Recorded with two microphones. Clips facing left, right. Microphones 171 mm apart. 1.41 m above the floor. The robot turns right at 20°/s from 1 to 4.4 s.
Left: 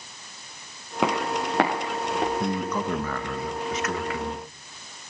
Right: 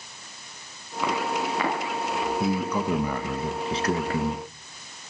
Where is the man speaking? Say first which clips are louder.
Right 1 dB; 175° right, 1.7 m; by 4.5 s 135° right, 1.7 m.